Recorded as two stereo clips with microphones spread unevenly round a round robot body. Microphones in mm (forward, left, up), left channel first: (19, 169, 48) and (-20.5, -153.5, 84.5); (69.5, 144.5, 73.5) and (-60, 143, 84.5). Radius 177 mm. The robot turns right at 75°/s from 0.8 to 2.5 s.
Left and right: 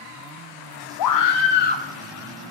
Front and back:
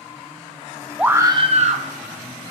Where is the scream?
95° left, 1.0 m; by 1.9 s 160° left, 1.0 m.